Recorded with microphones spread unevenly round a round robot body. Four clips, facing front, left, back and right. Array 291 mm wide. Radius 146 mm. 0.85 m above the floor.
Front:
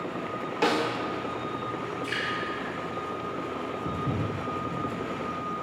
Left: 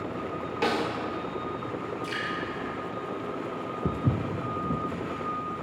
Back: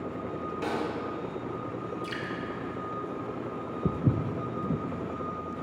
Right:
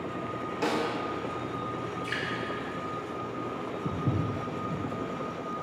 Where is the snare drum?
20° left, 1.0 m.